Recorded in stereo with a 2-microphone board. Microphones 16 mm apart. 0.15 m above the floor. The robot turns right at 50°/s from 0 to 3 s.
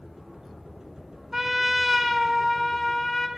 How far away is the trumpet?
About 1.2 m.